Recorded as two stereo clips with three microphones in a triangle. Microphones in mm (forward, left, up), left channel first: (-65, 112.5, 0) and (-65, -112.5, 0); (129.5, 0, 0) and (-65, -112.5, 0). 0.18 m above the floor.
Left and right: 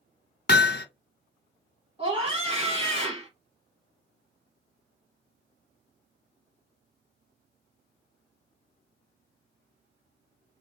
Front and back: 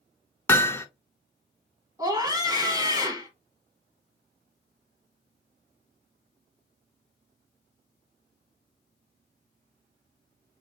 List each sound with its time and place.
0.5 s hammering: 105° left, 0.6 m
2.0 s a scream: 95° right, 1.1 m